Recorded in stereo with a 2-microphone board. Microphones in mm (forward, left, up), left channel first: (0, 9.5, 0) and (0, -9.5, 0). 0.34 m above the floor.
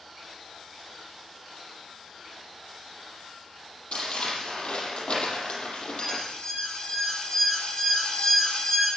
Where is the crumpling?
85° left, 7.5 m.